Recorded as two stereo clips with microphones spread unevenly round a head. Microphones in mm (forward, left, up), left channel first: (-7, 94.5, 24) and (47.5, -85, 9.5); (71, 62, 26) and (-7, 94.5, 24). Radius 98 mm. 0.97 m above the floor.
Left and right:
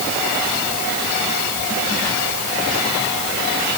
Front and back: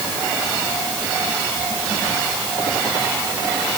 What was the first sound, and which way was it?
Only background noise.